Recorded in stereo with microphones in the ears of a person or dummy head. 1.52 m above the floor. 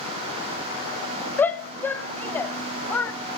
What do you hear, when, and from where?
1.4 s a shout: 10° left (ahead or behind), 0.6 m